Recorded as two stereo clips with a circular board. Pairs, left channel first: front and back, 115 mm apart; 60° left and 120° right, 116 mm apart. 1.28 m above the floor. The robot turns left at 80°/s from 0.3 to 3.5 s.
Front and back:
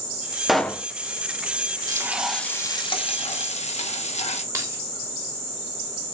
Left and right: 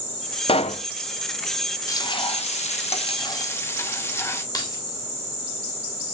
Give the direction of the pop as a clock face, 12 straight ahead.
9 o'clock.